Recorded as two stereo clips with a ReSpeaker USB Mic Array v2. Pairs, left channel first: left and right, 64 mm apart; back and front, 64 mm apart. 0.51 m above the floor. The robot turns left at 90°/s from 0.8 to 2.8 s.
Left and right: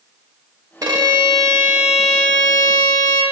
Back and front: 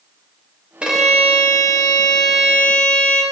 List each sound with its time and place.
0.8 s a violin: 75° right, 0.7 m; by 3.2 s 105° left, 0.7 m